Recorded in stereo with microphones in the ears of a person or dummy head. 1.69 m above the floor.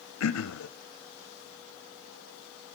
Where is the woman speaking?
I don't hear a woman speaking.